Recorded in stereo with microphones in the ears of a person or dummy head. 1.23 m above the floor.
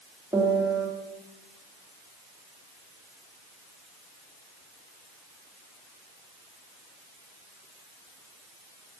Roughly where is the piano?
Centre.